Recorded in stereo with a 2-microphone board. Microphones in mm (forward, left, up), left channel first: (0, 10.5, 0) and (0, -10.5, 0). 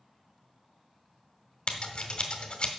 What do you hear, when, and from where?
1.7 s scissors: 50° left (ahead or behind), 1.4 m